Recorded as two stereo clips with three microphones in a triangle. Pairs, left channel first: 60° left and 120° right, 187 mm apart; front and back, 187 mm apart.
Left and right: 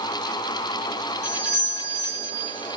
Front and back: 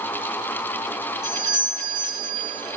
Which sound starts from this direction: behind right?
A doorbell, at 1.2 s.